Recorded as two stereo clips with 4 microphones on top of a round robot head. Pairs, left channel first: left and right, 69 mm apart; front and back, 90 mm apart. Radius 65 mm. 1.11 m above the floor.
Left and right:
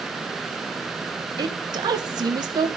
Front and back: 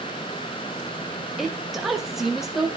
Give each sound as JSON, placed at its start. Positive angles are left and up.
{"t": 1.4, "sound": "a woman speaking", "azimuth_deg": -90, "distance_m": 1.3}